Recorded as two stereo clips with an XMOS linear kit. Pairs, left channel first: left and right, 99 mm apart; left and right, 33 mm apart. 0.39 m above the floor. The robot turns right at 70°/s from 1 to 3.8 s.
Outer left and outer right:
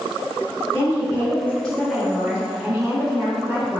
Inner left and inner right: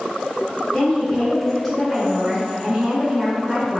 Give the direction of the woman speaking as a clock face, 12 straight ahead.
8 o'clock.